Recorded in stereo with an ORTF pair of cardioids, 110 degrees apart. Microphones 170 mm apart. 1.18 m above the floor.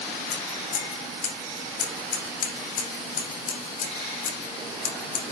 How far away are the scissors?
About 4.5 m.